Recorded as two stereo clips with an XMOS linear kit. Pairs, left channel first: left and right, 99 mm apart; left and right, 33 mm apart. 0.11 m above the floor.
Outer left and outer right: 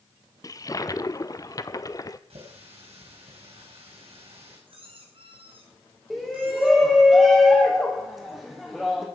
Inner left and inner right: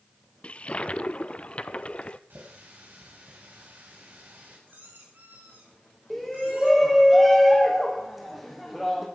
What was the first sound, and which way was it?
A toilet flushing, 35° left (ahead or behind).